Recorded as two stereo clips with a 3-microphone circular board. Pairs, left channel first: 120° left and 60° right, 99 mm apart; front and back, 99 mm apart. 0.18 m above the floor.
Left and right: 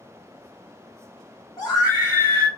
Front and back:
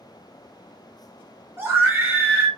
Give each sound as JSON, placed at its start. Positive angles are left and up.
{"t": 1.6, "sound": "a scream", "azimuth_deg": 130, "distance_m": 1.9}